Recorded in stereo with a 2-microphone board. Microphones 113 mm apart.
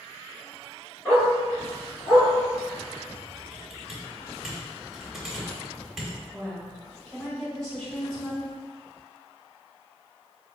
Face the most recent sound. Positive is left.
turn(degrees=5)  # may be behind; listen again after turning